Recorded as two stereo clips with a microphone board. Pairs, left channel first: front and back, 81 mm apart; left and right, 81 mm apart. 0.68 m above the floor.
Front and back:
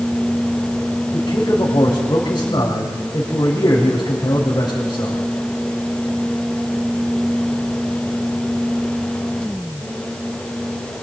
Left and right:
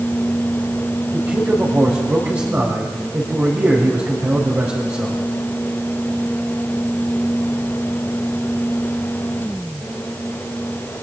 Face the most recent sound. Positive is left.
turn(degrees=-35)